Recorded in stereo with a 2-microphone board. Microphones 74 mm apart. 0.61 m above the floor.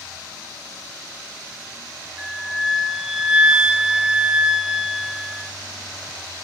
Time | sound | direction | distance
2.2 | a flute | 10° right (ahead or behind) | 0.6 m